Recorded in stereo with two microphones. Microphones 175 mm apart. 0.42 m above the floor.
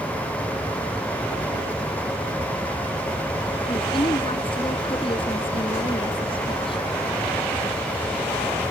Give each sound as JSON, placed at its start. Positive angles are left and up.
{"t": 3.7, "sound": "a woman speaking", "side_deg": 30}